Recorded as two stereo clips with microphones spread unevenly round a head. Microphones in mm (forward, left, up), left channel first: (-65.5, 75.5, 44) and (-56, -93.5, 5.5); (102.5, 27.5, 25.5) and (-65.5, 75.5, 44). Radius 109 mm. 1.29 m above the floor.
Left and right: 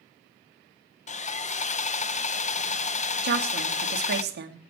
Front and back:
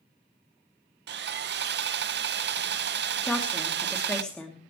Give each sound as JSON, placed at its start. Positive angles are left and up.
{"t": 1.1, "sound": "sawing", "azimuth_deg": 140, "distance_m": 0.7}
{"t": 3.2, "sound": "a woman speaking", "azimuth_deg": -105, "distance_m": 3.0}